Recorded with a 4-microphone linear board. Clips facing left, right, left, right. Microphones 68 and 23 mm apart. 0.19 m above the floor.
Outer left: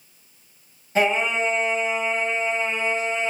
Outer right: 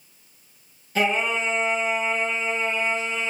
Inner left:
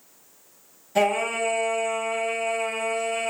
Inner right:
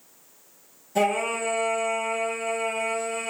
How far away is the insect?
No insect in this recording.